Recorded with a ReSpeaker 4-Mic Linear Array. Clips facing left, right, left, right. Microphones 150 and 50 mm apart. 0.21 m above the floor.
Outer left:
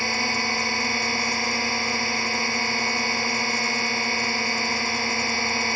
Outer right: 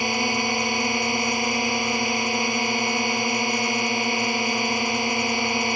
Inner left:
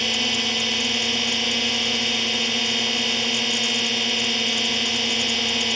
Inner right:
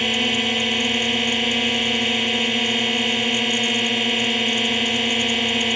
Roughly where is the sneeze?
No sneeze in this recording.